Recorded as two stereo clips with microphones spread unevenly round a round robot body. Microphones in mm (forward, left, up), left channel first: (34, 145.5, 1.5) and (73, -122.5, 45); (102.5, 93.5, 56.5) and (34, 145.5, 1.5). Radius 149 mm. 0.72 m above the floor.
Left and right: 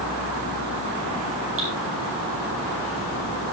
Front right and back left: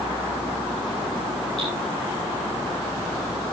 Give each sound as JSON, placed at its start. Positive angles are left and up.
{"t": 1.6, "sound": "dripping", "azimuth_deg": -130, "distance_m": 8.0}